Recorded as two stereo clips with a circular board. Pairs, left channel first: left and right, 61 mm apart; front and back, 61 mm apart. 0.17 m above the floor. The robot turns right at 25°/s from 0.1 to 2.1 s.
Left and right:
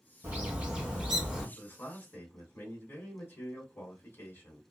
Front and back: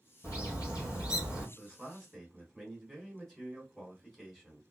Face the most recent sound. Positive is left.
turn(degrees=80)